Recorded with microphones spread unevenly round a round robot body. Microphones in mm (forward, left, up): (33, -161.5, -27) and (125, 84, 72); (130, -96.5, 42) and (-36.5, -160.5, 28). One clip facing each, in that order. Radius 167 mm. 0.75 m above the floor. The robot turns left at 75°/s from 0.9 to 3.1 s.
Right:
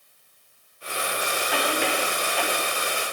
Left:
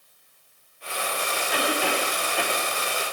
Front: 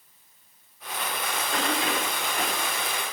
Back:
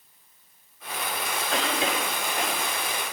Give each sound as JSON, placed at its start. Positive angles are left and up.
{"t": 1.5, "sound": "a cough", "azimuth_deg": -150, "distance_m": 4.5}